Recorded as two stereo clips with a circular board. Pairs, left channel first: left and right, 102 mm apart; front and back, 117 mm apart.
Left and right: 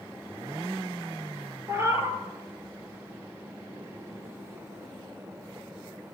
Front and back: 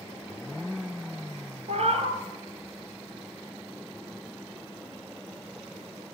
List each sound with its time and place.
1.7 s a cat meowing: 155° right, 1.0 m